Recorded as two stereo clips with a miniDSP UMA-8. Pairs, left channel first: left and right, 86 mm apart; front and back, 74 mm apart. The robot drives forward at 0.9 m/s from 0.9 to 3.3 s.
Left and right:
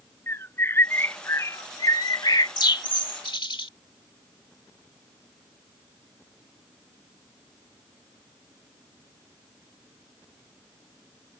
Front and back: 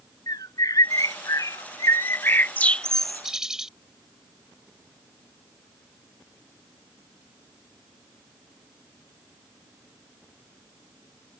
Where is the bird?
30° left; by 3.7 s 95° left.